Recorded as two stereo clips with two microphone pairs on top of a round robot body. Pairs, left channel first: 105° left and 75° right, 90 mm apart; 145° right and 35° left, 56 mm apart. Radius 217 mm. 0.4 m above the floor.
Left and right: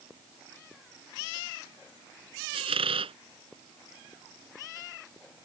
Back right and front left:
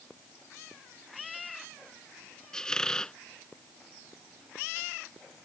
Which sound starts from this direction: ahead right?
A squeak, at 2.5 s.